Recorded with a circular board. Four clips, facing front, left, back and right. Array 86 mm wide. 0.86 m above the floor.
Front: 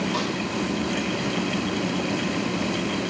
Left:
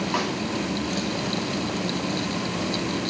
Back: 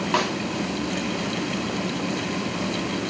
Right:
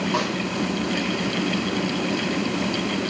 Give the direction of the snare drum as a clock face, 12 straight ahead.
6 o'clock.